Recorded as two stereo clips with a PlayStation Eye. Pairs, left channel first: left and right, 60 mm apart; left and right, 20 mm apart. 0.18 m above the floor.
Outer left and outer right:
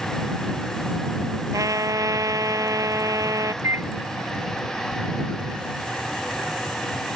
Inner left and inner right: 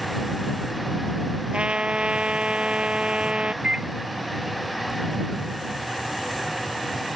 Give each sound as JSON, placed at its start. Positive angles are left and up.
{"t": 1.5, "sound": "a trumpet", "side_deg": -70}
{"t": 3.6, "sound": "a microwave", "side_deg": -50}